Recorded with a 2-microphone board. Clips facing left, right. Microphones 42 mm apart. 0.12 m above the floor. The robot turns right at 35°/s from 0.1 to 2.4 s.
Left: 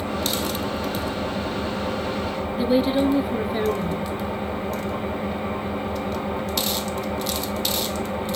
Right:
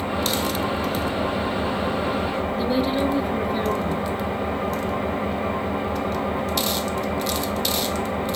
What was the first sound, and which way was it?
An engine running, 150° right.